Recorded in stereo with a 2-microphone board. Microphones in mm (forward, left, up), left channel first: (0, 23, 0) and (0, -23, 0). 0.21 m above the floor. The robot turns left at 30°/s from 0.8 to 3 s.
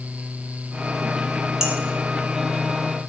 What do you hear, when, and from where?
1.6 s dishes clattering: 10° right (ahead or behind), 1.0 m